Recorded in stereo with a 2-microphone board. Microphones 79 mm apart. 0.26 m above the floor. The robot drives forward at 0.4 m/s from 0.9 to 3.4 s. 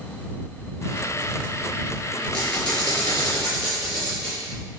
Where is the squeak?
15° left (ahead or behind), 1.3 m; by 4.4 s 10° left (ahead or behind), 1.8 m.